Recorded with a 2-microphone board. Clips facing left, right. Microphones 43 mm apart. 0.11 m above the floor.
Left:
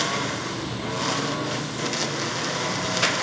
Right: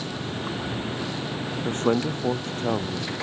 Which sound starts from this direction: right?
A man speaking, at 1.6 s.